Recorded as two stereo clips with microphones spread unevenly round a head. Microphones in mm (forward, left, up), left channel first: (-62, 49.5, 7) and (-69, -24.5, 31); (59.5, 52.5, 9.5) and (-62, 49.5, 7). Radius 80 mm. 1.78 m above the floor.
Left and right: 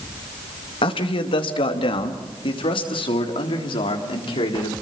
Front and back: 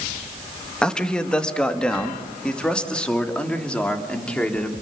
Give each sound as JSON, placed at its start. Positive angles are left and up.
{"t": 0.8, "sound": "a man speaking", "azimuth_deg": 85, "distance_m": 2.0}